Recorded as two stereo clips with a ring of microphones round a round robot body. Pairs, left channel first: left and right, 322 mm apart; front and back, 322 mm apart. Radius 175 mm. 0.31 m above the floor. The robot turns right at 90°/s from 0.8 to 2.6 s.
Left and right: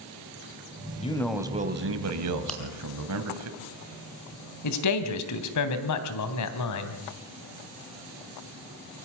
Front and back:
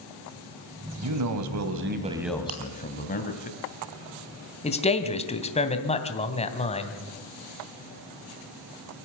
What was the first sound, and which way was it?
A man speaking, 155° left.